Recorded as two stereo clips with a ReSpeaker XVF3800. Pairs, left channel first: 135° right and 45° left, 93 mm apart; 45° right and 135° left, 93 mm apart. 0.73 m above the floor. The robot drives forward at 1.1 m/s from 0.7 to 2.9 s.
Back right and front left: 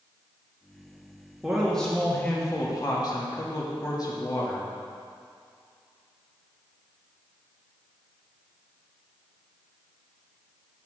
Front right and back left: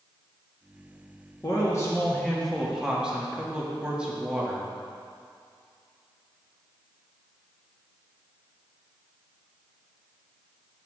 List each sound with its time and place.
1.4 s a man speaking: 35° right, 1.4 m; by 4.7 s 150° right, 1.5 m